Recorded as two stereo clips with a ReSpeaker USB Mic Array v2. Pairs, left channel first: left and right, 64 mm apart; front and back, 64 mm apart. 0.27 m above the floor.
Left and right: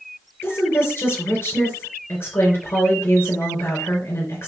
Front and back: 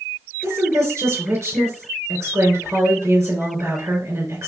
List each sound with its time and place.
0.4 s a woman speaking: 135° left, 3.5 m